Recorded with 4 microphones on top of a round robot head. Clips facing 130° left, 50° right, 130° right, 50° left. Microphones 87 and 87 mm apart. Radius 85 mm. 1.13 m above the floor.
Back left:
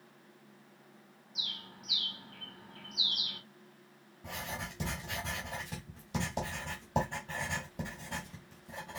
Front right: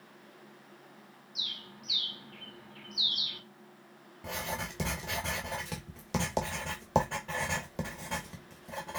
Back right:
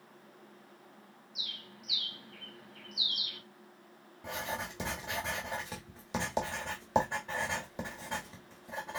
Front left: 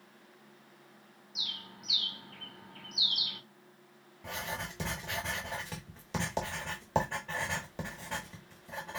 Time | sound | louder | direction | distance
1.4 | a bird | even, front left 3 dB | 75° left | 1.8 m
4.2 | writing | front right 4 dB, back right 1 dB | 55° right | 1.0 m